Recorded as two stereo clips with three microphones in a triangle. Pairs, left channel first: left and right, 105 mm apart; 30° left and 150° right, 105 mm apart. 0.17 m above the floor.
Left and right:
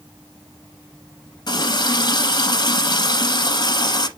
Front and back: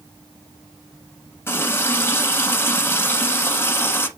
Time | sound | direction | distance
1.5 | a running tap | 85° left | 1.1 m